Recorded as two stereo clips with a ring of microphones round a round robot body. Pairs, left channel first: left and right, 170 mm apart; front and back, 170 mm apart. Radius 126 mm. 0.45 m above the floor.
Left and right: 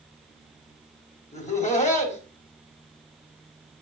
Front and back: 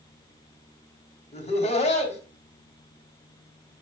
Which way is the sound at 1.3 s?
45° left.